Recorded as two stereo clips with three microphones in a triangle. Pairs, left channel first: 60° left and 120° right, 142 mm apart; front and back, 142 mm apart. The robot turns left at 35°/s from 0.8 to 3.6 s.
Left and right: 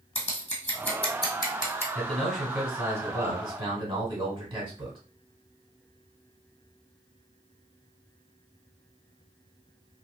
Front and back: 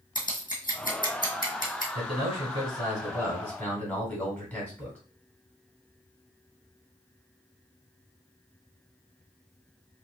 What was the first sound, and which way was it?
Scissors, 20° left.